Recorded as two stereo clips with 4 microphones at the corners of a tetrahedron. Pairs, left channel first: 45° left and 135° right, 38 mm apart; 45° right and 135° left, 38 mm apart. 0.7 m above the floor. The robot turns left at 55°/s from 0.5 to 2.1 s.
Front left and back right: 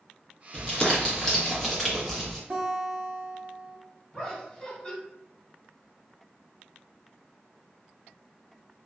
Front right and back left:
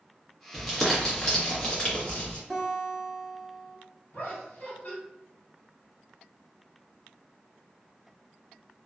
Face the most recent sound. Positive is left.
turn(degrees=-15)